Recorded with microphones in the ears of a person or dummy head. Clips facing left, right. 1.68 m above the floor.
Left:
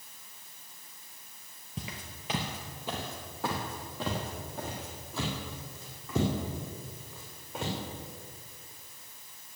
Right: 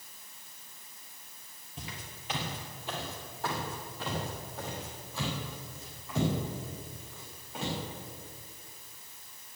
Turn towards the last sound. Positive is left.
turn(degrees=65)  # may be behind; listen again after turning